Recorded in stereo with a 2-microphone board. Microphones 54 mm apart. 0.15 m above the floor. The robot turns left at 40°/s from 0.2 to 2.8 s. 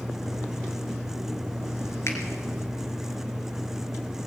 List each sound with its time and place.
2.1 s a finger snap: 55° left (ahead or behind), 2.5 m